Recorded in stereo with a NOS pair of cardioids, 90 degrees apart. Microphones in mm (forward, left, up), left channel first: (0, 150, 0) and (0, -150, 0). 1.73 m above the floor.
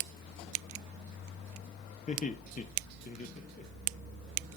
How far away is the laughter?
About 1.4 m.